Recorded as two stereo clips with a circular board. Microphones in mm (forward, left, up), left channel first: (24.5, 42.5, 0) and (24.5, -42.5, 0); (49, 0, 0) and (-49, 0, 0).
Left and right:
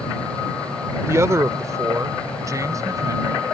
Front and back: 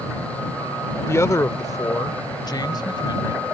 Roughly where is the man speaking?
Ahead right.